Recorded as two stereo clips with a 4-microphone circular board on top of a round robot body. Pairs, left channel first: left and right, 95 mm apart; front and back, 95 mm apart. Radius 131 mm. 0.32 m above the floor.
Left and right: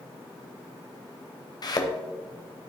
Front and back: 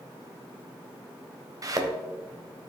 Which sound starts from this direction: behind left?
A thud, at 1.6 s.